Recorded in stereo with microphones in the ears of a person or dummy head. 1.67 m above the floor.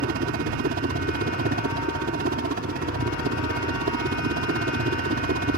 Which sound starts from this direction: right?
A helicopter, at 0.0 s.